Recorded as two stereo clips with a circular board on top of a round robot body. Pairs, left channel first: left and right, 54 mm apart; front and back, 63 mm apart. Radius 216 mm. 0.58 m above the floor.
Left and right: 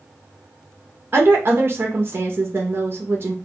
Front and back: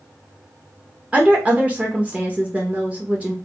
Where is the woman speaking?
120° right, 0.8 m.